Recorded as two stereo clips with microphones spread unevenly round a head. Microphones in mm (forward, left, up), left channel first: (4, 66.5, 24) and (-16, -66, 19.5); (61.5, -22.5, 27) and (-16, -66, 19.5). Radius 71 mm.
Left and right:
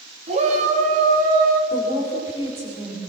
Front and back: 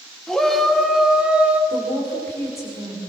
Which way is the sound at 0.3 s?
55° right.